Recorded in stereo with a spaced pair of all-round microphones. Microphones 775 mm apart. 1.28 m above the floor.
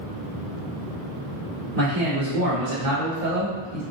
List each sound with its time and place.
1.8 s a man speaking: 50° right (ahead or behind), 1.1 m